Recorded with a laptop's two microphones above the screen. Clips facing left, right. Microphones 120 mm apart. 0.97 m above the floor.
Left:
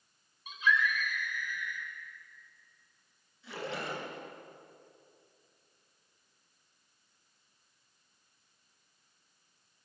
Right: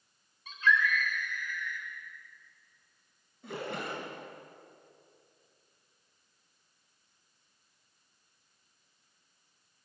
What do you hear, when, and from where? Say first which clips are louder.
0.5 s a scream: right 2 dB; 15° left (ahead or behind), 3.5 m
3.4 s a splash: right 1 dB; 55° right (ahead or behind), 9 m